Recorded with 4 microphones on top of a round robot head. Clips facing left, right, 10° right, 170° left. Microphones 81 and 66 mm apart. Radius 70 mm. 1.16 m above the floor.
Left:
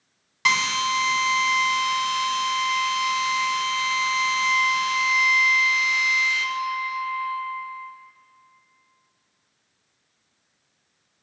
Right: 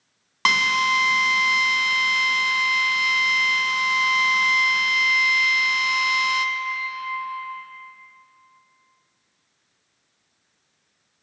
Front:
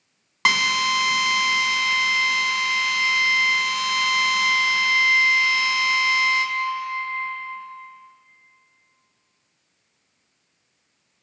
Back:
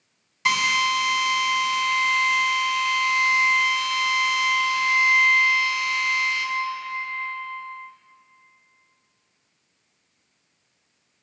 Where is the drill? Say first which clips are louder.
Right 2 dB, front 1 dB; 40° right, 1.3 m.